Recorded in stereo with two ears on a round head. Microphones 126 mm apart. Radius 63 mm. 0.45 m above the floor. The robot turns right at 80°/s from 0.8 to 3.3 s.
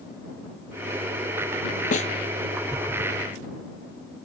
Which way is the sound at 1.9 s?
65° left (ahead or behind).